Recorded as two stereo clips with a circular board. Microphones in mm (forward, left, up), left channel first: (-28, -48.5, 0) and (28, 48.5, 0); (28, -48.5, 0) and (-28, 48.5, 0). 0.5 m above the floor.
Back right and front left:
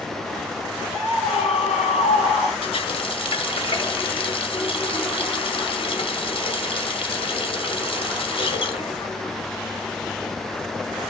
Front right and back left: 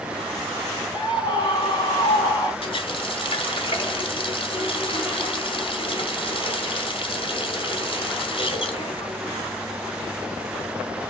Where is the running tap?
90° right, 1.7 m.